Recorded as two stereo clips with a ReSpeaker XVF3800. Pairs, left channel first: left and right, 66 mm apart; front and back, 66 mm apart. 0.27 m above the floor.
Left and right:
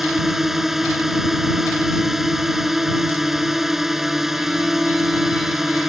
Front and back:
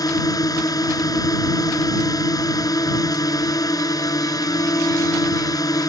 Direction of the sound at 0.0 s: 5° right.